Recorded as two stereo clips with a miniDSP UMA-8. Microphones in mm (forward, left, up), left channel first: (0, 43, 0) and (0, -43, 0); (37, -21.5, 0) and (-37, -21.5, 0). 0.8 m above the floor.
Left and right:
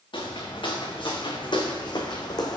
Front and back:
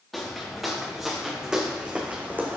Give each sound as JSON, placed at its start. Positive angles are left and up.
{"t": 0.1, "sound": "footsteps", "azimuth_deg": 90, "distance_m": 3.0}